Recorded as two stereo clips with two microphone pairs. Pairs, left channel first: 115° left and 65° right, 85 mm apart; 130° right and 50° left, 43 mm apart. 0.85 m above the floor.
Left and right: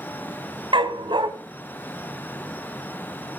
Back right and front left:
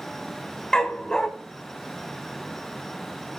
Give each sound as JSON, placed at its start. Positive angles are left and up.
{"t": 0.7, "sound": "a dog barking", "azimuth_deg": -60, "distance_m": 1.7}